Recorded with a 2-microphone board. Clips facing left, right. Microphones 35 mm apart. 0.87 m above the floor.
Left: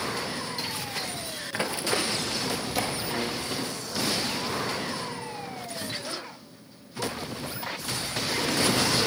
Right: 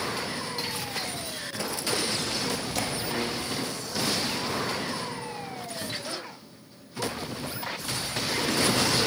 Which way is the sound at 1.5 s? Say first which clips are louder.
Left 3 dB; 35° left (ahead or behind).